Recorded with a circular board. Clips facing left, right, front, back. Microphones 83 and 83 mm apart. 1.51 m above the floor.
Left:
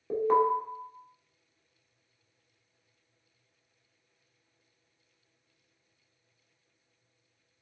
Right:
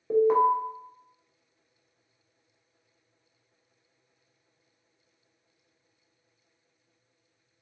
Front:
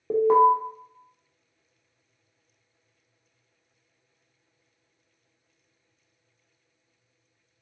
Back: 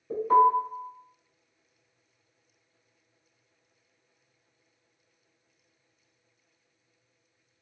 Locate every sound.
0.1 s an alarm: 5° right, 1.1 m